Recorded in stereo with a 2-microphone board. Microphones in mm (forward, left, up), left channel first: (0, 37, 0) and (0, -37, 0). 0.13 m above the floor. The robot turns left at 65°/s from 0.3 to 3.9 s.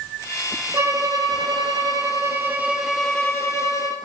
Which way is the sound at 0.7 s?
35° right.